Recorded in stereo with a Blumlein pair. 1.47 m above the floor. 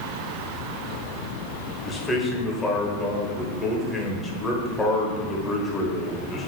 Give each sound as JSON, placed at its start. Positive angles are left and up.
{"t": 1.9, "sound": "a man speaking", "azimuth_deg": 10, "distance_m": 0.9}